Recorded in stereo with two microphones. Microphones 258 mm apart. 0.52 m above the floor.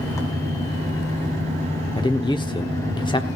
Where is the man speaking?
15° left (ahead or behind), 1.0 m.